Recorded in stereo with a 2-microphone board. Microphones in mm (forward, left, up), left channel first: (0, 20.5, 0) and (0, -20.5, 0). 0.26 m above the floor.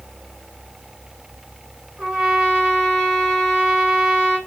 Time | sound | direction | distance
2.0 | a trumpet | 20° right (ahead or behind) | 1.9 m